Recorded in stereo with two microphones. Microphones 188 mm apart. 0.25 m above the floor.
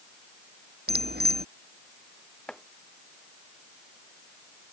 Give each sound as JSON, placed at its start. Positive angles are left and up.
{"t": 0.9, "sound": "a bicycle bell", "side_deg": -60}
{"t": 2.5, "sound": "chopping", "side_deg": 5}